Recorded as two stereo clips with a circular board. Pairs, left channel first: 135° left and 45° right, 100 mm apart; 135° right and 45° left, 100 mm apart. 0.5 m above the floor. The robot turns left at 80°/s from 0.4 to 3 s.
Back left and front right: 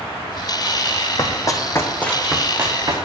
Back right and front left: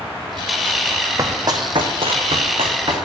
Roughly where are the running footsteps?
Left.